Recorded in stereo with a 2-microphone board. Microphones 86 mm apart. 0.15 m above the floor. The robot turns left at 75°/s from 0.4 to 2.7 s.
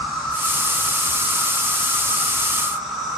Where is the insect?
170° left, 1.3 m; by 3.2 s straight ahead, 1.3 m.